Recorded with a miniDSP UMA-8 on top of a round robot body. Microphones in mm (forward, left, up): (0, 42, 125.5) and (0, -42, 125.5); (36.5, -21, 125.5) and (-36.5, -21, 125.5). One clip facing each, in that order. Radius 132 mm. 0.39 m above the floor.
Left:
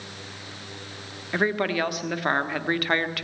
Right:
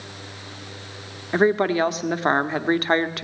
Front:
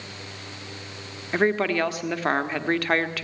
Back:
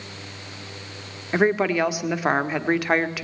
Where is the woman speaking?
115° right, 1.4 m.